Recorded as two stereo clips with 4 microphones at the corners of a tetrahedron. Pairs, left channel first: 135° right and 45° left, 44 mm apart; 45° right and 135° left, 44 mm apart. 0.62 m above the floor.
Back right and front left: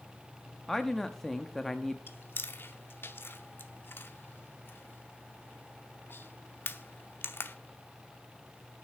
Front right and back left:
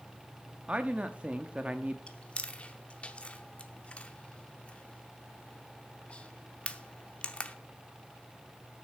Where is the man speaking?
150° left, 0.7 m.